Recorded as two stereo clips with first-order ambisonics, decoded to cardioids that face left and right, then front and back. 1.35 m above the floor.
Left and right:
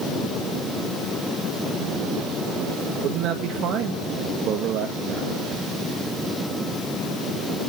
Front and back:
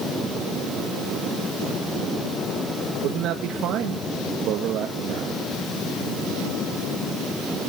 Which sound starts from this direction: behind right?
A man speaking, at 3.0 s.